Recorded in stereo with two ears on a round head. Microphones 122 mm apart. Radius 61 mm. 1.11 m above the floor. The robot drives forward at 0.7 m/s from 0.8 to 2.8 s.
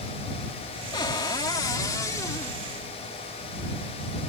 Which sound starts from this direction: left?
A cupboard door, at 0.9 s.